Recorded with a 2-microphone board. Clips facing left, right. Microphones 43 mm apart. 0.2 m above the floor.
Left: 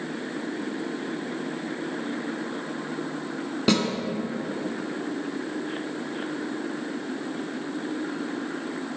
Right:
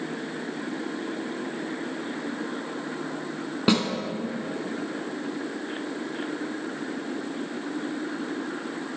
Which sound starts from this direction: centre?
A snare drum, at 3.7 s.